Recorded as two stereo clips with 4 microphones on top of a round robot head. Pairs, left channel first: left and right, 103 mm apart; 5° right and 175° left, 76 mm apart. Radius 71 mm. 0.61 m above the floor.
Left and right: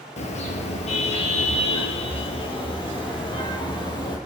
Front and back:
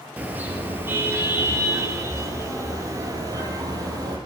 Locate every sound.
0.2 s a car horn: 105° left, 5 m; by 4.2 s 135° left, 7 m